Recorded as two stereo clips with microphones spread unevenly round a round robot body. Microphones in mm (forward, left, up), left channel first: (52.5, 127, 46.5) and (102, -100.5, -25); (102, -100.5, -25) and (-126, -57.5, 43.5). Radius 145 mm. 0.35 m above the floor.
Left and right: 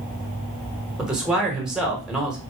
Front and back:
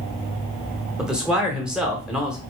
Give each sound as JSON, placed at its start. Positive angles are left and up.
{"t": 1.0, "sound": "a man speaking", "azimuth_deg": -60, "distance_m": 0.9}